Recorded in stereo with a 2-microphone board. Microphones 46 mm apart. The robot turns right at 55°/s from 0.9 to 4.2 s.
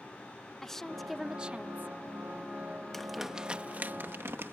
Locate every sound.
0.6 s a woman speaking: 170° left; by 1.9 s 135° right
2.9 s crumpling: 10° left (ahead or behind); by 4.5 s 60° right (ahead or behind)